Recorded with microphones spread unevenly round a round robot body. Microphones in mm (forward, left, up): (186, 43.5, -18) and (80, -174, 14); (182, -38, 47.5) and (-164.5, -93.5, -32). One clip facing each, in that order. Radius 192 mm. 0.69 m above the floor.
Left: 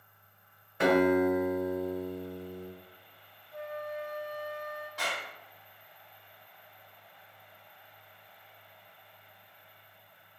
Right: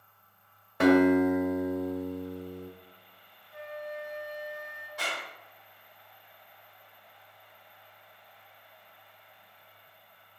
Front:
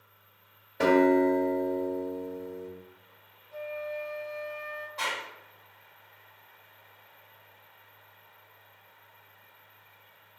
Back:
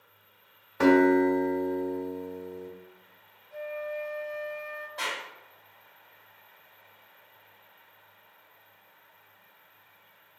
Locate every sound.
0.8 s a guitar: 90° right, 1.4 m
3.5 s a flute: 160° left, 1.4 m
5.0 s a clap: 125° left, 1.6 m